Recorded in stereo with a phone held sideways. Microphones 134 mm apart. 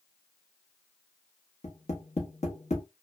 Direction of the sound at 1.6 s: 55° left (ahead or behind).